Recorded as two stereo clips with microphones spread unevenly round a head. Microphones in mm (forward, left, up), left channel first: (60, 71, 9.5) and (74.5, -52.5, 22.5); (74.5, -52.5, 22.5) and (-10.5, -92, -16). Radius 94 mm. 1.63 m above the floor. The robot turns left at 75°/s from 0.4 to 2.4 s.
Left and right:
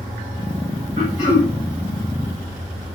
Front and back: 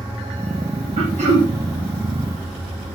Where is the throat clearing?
150° right, 3.5 m; by 1.5 s 170° left, 3.5 m.